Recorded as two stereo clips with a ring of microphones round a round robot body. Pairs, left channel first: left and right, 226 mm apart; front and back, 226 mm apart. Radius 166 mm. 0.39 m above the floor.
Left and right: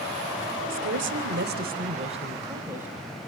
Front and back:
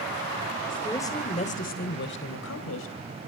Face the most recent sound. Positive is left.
turn(degrees=-5)